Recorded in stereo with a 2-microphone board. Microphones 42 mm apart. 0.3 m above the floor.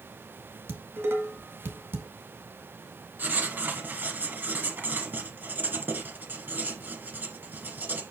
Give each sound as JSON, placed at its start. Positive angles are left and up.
{"t": 0.7, "sound": "dishes clattering", "side_deg": -70, "distance_m": 1.7}
{"t": 3.2, "sound": "writing", "side_deg": -45, "distance_m": 1.7}